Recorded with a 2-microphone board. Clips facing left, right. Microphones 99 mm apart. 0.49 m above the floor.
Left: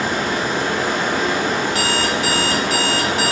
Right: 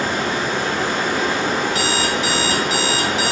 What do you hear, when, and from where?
0.0 s running water: 15° left (ahead or behind), 1.3 m
1.7 s an alarm clock: 45° left (ahead or behind), 0.7 m